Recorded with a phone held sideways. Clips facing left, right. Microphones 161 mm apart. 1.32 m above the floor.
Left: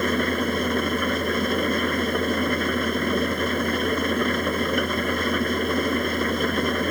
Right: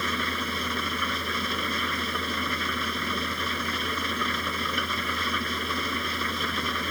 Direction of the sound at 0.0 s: 50° left (ahead or behind).